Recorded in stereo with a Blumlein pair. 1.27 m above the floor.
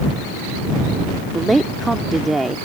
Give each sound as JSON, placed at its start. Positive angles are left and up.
{"t": 1.3, "sound": "a woman speaking", "azimuth_deg": -10}